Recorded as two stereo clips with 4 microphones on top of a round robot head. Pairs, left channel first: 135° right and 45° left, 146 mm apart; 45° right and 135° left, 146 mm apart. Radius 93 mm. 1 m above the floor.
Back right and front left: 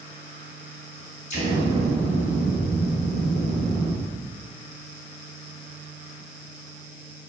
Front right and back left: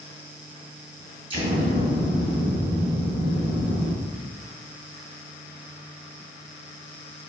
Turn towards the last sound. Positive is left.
turn(degrees=-170)